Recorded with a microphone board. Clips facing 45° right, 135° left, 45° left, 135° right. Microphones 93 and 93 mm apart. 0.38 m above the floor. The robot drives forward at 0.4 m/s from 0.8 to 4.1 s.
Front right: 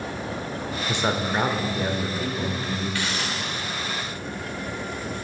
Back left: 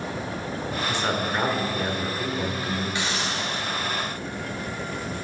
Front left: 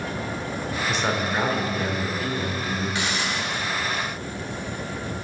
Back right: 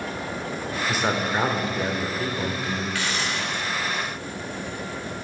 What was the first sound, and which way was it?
A man speaking, 60° right.